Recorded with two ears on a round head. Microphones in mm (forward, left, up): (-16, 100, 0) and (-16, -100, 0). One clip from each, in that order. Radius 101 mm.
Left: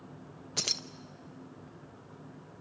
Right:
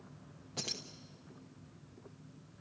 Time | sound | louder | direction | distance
0.6 | keys jangling | left 8 dB | 50° left (ahead or behind) | 0.9 m